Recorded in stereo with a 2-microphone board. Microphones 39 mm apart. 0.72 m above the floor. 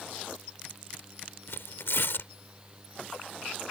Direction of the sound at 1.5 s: 75° left (ahead or behind).